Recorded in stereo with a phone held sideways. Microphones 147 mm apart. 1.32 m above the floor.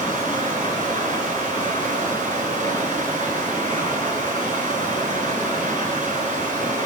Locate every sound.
0.0 s running water: 35° left (ahead or behind), 10 m